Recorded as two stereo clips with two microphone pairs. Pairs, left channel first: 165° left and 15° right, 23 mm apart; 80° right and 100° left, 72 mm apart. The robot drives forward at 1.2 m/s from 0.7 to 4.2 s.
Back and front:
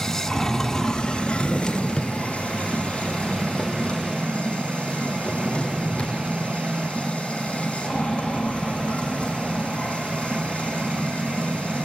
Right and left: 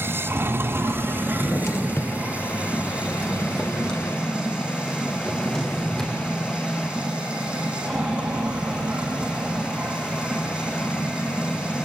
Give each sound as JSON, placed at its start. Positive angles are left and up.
{"t": 0.0, "sound": "running water", "azimuth_deg": 110, "distance_m": 1.0}
{"t": 1.3, "sound": "a drawer", "azimuth_deg": -110, "distance_m": 1.5}